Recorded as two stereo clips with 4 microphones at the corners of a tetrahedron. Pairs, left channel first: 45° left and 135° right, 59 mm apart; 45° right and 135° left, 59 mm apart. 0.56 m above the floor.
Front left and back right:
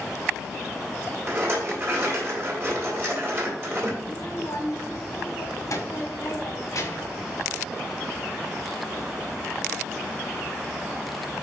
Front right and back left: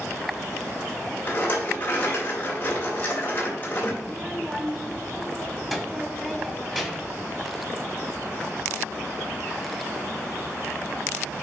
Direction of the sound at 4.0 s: 55° left.